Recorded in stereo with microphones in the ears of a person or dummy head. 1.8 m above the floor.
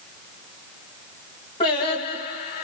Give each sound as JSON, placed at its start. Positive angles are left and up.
{"t": 1.6, "sound": "singing", "side_deg": 30, "distance_m": 1.0}